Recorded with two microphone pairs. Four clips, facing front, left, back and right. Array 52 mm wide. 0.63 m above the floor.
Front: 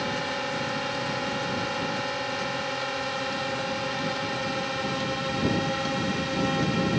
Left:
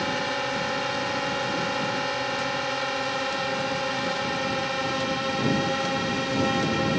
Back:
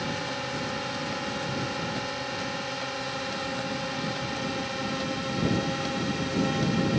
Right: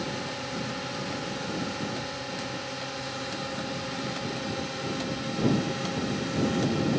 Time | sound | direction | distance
0.0 | a drone | 70° left | ?